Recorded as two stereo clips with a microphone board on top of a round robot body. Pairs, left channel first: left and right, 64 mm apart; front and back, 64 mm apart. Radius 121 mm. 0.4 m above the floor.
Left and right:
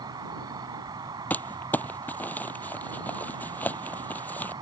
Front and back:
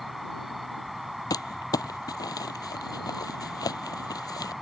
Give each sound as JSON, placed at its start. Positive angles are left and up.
{"t": 0.0, "sound": "an insect", "azimuth_deg": -90}
{"t": 1.3, "sound": "crumpling", "azimuth_deg": 25}